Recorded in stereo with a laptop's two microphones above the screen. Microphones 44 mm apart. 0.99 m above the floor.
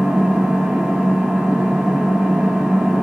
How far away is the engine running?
About 1.0 m.